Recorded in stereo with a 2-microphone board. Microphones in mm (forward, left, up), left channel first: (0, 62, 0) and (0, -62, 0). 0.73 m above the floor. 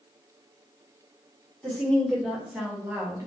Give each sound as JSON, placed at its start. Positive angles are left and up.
{"t": 1.6, "sound": "a woman speaking", "side_deg": 15, "distance_m": 1.1}